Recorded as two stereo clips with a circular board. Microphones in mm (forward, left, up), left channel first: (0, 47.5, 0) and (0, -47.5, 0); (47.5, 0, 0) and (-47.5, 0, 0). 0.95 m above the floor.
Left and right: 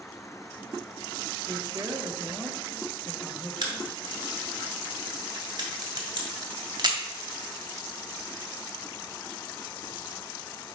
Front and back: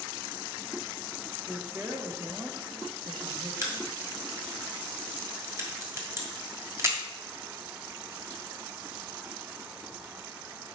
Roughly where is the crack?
Behind right.